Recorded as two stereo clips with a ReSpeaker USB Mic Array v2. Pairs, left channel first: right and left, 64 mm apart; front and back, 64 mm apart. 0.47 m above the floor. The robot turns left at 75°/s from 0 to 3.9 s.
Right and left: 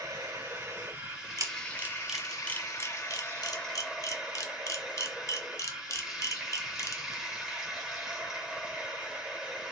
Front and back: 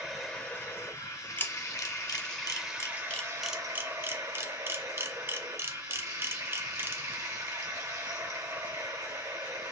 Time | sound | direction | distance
0.0 | running water | 100° left | 1.5 m
1.4 | a camera shutter | 60° left | 0.6 m